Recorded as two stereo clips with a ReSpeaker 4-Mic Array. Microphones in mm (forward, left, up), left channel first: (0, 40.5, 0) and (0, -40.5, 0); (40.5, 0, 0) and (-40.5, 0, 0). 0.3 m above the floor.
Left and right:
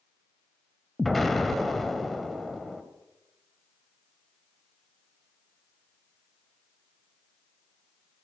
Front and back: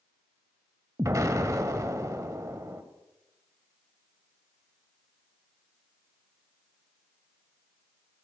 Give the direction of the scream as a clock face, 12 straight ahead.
I don't hear a scream.